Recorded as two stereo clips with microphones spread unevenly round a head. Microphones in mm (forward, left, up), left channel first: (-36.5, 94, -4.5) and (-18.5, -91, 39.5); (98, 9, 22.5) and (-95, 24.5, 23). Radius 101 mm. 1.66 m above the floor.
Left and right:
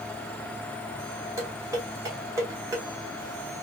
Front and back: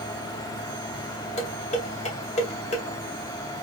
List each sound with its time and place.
1.4 s dishes clattering: 40° right, 0.7 m